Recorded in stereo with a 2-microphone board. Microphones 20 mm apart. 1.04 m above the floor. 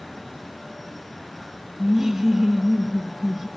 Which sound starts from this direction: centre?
Laughter, at 1.8 s.